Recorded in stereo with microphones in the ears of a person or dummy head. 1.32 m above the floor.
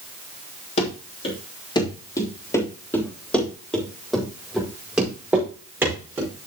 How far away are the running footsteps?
About 3 m.